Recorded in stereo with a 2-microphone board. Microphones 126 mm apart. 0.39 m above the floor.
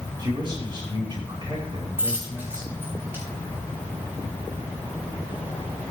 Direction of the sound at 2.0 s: 20° right (ahead or behind).